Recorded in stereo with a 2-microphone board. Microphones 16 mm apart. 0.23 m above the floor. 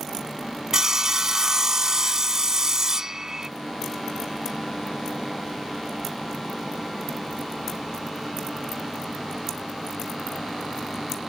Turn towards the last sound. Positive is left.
turn(degrees=-45)  # may be behind; listen again after turning